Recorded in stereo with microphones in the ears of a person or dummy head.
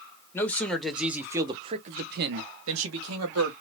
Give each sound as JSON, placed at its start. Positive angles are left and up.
{"t": 0.3, "sound": "a man speaking", "side_deg": 10, "distance_m": 1.4}